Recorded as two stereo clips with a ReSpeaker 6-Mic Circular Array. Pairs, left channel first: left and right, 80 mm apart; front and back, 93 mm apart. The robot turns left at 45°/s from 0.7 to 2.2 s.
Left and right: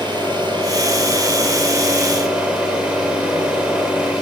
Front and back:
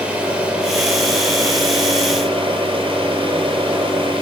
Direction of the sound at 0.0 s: 105° right.